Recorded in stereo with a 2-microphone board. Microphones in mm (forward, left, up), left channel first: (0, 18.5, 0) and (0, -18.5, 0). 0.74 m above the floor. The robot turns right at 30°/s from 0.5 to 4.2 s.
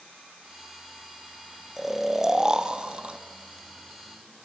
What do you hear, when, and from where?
1.8 s snoring: 175° right, 0.6 m; by 3.2 s 135° right, 0.6 m